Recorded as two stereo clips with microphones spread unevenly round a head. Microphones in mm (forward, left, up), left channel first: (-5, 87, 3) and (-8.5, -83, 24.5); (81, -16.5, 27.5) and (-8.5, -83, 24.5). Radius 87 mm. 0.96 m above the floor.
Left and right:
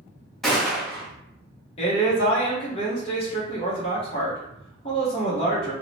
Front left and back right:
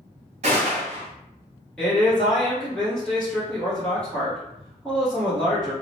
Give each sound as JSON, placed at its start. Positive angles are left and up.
{"t": 0.4, "sound": "a gunshot", "azimuth_deg": 175, "distance_m": 0.8}
{"t": 1.8, "sound": "a man speaking", "azimuth_deg": 115, "distance_m": 0.9}